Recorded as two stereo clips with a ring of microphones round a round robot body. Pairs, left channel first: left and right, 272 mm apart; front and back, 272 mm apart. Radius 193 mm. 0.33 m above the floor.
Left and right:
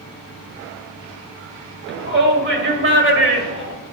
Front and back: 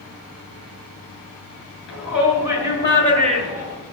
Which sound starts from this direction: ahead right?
A shout, at 1.9 s.